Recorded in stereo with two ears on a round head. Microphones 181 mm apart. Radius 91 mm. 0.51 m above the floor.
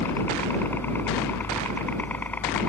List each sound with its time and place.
0.0 s a helicopter: 10° left (ahead or behind)